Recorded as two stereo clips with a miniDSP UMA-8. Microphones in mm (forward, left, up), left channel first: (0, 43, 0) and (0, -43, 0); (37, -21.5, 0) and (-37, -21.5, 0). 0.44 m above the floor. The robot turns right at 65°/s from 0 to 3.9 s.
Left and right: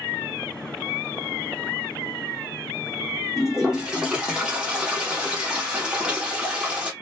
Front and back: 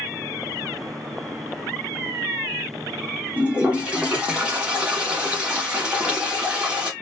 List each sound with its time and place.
3.4 s a toilet flushing: 175° right, 1.0 m; by 6.9 s 140° right, 1.0 m